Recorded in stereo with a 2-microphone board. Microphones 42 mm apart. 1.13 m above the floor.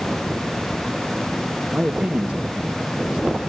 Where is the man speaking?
35° right (ahead or behind), 1.2 m.